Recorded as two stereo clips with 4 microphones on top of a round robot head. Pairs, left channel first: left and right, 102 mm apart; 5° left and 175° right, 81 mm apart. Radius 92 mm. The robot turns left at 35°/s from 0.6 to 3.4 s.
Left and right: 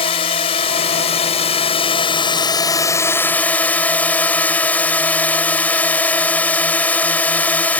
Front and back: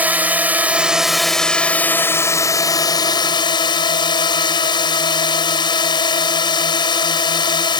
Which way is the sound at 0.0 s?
115° left.